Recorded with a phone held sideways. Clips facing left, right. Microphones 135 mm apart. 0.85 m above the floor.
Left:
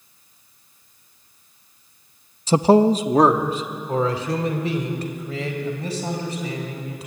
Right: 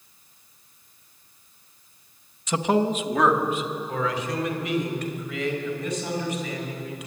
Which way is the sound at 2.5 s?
30° left (ahead or behind).